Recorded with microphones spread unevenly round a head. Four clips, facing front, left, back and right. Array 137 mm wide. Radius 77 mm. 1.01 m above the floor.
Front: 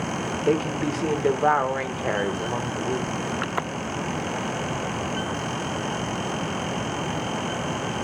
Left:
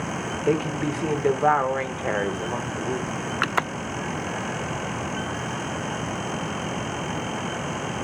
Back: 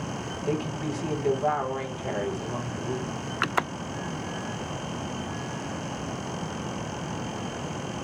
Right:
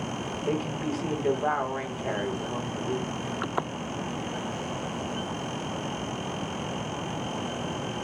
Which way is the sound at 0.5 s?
45° left.